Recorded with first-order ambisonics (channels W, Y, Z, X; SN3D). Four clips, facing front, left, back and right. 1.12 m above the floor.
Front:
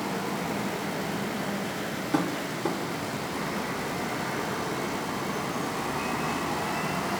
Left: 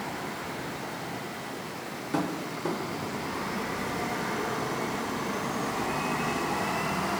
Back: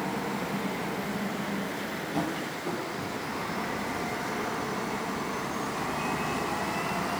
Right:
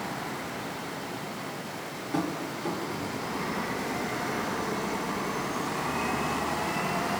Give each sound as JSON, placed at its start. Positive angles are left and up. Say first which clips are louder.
{"t": 2.1, "sound": "tapping", "louder": "even, front 5 dB", "azimuth_deg": 20, "distance_m": 0.5}